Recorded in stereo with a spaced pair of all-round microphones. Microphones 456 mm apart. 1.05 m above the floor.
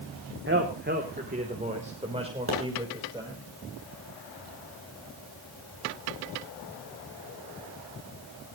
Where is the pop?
25° right (ahead or behind), 9 m.